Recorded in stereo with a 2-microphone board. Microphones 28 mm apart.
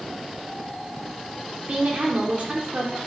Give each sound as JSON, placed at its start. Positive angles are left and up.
{"t": 1.7, "sound": "a woman speaking", "side_deg": -40, "distance_m": 0.9}